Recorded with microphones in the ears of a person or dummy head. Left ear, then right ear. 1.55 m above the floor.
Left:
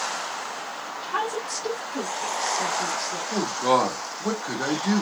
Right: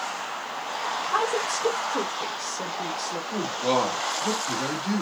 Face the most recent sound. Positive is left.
turn(degrees=50)  # may be behind; listen again after turning